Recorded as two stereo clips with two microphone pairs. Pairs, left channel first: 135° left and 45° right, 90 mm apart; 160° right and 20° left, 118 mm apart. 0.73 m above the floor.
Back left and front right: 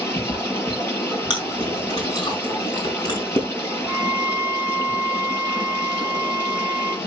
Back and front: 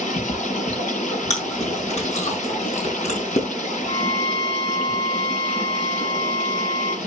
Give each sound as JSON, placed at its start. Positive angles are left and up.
{"t": 0.0, "sound": "running water", "azimuth_deg": -165, "distance_m": 8.0}
{"t": 1.3, "sound": "chewing", "azimuth_deg": 175, "distance_m": 5.0}
{"t": 3.9, "sound": "a violin", "azimuth_deg": -115, "distance_m": 1.2}